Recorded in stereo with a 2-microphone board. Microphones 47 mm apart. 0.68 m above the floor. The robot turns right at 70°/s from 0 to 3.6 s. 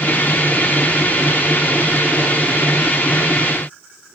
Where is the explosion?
I don't hear an explosion.